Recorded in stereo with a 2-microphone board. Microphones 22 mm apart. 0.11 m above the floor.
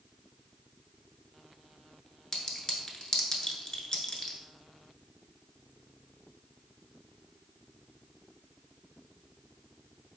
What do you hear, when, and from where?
2.3 s a clink: 30° left (ahead or behind), 0.7 m